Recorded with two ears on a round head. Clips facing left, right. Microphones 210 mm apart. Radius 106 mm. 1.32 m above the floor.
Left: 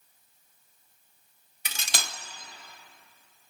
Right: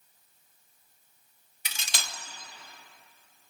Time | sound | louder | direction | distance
1.6 | cutlery clinking | left 4 dB | 40° left (ahead or behind) | 0.7 m